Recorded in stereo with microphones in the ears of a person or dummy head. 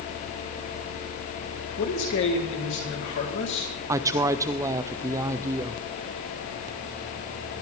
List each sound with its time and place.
1.8 s a man speaking: 60° left (ahead or behind), 3.5 m
3.9 s a woman speaking: 15° right (ahead or behind), 0.7 m